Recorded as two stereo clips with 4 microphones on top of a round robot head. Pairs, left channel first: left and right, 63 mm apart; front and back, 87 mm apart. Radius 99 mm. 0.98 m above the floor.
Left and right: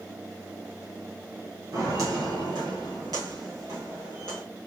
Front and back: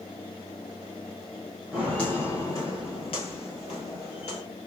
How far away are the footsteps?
About 1.1 m.